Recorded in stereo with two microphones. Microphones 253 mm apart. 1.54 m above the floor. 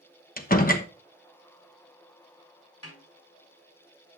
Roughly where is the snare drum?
Left.